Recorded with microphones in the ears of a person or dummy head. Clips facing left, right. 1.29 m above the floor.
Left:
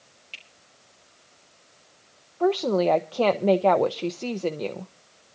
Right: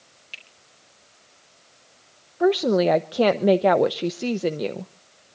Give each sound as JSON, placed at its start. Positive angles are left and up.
{"t": 0.3, "sound": "a finger snap", "side_deg": -20, "distance_m": 4.0}
{"t": 2.4, "sound": "a woman speaking", "side_deg": -15, "distance_m": 0.5}